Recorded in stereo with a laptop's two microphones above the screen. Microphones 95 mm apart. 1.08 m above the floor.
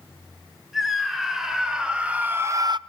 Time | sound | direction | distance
0.7 | a scream | 5° right (ahead or behind) | 3 m